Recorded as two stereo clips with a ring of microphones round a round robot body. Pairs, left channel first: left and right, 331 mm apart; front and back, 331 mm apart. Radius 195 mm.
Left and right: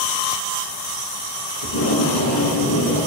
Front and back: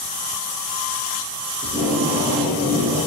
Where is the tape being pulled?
105° left, 3.5 m.